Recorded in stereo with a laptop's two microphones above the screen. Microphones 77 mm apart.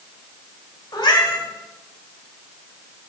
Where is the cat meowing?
75° left (ahead or behind), 2.0 m.